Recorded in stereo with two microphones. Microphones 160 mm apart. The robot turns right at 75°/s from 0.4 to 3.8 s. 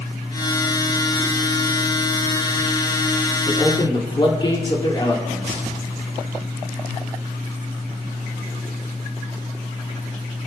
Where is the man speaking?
5° left (ahead or behind), 3.5 m; by 5.6 s 30° left (ahead or behind), 3.5 m.